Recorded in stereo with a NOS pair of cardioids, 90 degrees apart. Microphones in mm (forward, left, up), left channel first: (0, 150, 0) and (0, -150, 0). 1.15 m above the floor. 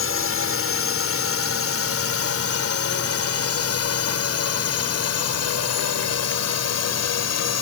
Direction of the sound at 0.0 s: 50° left.